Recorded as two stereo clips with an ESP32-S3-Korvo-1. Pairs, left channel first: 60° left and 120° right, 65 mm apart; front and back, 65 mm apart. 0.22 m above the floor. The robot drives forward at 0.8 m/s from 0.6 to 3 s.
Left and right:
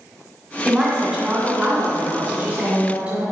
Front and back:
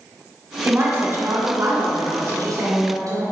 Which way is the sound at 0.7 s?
170° left.